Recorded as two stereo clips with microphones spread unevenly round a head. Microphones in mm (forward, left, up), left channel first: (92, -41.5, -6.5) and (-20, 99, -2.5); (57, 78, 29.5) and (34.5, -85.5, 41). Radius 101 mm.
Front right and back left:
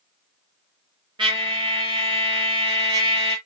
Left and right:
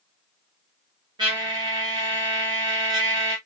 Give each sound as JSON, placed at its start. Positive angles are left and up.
{"t": 1.2, "sound": "a trumpet", "azimuth_deg": -165, "distance_m": 1.3}